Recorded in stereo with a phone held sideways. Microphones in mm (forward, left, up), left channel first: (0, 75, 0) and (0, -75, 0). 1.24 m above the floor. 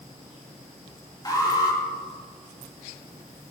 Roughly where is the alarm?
Left.